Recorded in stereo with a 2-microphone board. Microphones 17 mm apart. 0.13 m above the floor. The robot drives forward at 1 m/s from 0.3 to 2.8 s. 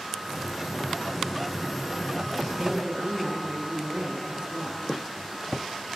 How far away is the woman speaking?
About 1.9 m.